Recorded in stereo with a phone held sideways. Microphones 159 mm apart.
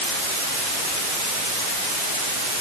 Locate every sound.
Only background noise.